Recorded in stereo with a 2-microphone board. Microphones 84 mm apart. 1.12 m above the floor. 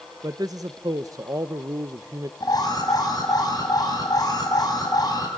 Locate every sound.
0.2 s a man speaking: 45° right (ahead or behind), 0.7 m
2.4 s an alarm: 50° left (ahead or behind), 5.5 m